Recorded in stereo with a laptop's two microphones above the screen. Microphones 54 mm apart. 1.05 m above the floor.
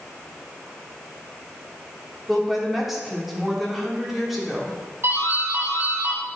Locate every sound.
2.3 s a woman speaking: centre (ahead or behind), 2.5 m
5.0 s a doorbell: 50° right (ahead or behind), 2.5 m